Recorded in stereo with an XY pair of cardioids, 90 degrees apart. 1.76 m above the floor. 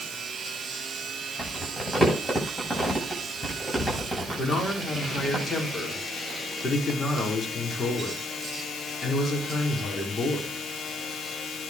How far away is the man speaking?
About 5.5 m.